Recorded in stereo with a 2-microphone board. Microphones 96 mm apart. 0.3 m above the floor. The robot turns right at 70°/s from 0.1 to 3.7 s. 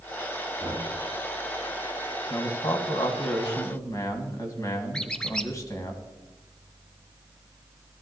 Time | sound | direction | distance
0.6 | knocking | 60° right (ahead or behind) | 5.5 m
2.3 | a man speaking | 40° left | 1.9 m
4.9 | a squeak | 10° left (ahead or behind) | 0.9 m